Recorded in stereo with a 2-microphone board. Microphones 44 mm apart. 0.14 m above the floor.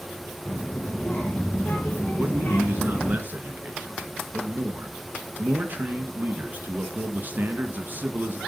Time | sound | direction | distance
0.5 | a child speaking | 40° left (ahead or behind) | 5 m
2.2 | a man speaking | 45° right (ahead or behind) | 2.5 m